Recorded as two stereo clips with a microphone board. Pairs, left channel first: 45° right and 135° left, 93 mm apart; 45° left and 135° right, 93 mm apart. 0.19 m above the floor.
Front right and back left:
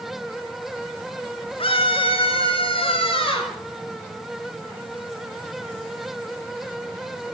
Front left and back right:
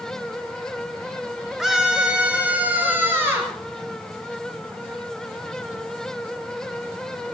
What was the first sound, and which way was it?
A scream, 50° right.